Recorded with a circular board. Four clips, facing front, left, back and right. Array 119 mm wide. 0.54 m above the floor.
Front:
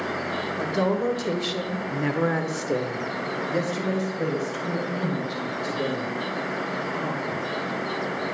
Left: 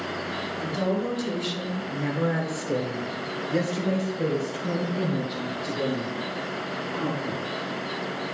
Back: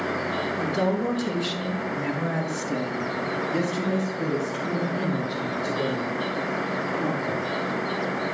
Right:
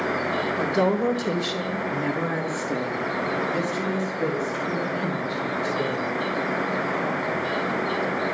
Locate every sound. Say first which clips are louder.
0.6 s a woman speaking: right 4 dB, front 2 dB; 65° right, 1.8 m; by 7.5 s 65° left, 5 m